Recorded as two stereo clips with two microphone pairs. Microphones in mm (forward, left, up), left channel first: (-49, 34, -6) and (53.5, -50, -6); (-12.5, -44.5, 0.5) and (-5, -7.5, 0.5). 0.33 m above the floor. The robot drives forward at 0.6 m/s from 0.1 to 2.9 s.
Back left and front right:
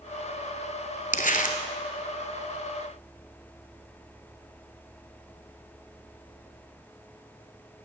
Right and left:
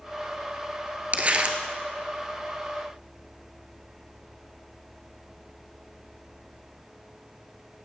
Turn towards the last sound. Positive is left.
turn(degrees=160)